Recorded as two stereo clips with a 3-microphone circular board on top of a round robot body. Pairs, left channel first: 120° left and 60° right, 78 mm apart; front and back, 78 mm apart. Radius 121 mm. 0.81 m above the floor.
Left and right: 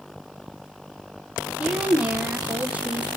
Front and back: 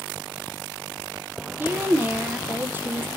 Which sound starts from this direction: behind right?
A woman speaking, at 1.6 s.